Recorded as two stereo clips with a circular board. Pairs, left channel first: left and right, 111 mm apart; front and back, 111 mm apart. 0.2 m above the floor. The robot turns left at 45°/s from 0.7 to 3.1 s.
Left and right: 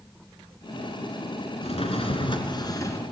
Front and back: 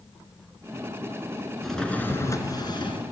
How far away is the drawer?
About 1.7 m.